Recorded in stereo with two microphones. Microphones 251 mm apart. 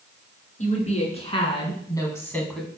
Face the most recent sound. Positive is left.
turn(degrees=0)  # may be behind; listen again after turning